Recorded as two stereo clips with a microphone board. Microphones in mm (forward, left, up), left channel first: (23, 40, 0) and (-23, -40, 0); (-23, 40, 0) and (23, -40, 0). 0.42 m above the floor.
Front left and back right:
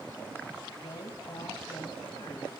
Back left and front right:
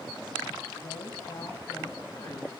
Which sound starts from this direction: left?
A woman speaking, at 0.8 s.